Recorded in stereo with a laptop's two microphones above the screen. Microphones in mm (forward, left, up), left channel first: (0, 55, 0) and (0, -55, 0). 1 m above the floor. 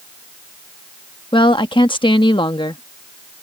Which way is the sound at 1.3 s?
50° left (ahead or behind).